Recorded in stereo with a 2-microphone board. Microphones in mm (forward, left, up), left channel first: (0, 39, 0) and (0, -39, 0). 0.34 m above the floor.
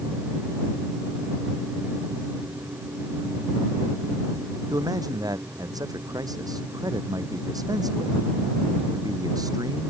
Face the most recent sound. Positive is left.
turn(degrees=-50)  # may be behind; listen again after turning